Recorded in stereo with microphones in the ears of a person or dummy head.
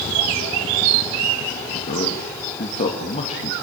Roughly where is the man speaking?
Left.